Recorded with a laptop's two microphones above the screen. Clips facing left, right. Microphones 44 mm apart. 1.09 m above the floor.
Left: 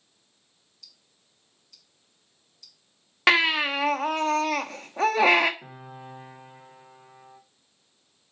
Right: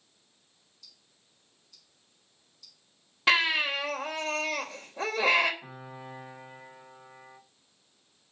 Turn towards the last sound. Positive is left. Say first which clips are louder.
# left 1 dB
turn(degrees=80)